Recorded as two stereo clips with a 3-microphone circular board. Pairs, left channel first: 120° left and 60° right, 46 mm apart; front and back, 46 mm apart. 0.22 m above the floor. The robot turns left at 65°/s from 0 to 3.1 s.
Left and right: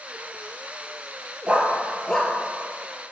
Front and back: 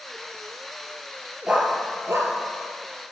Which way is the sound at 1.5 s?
115° right.